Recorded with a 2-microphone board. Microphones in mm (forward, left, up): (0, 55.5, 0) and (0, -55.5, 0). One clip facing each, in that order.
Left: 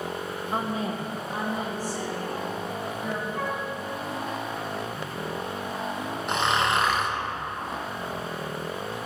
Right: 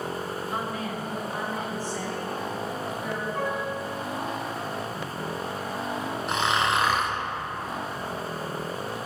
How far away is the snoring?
About 1.0 m.